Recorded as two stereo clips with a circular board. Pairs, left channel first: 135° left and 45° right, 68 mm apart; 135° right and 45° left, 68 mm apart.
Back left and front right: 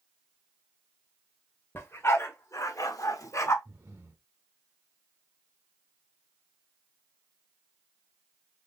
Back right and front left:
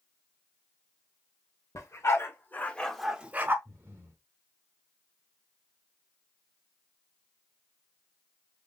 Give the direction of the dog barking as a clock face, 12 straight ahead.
6 o'clock.